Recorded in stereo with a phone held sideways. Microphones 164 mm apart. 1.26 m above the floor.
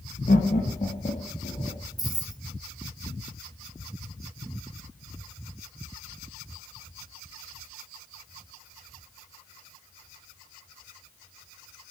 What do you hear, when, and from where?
0.3 s laughter: 60° left (ahead or behind), 1.1 m; by 1.8 s 50° left (ahead or behind), 2.5 m
2.0 s keys jangling: 25° right (ahead or behind), 0.7 m